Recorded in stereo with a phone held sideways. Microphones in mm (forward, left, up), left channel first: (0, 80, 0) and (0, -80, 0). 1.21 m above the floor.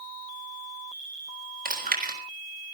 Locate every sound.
1.6 s chewing: 70° right (ahead or behind), 4 m